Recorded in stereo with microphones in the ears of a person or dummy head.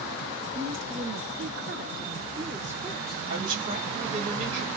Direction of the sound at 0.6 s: 80° right.